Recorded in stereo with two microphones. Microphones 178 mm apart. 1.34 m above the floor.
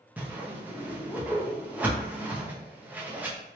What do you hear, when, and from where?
0.2 s a whoosh: 10° right (ahead or behind), 0.7 m